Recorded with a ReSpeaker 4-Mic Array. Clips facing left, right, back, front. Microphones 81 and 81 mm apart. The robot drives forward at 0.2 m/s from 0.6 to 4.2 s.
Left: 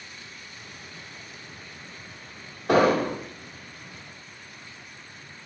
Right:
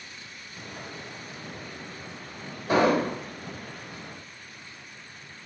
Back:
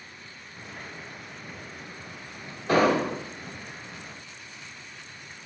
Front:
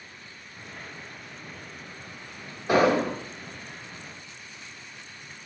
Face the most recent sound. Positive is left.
turn(degrees=95)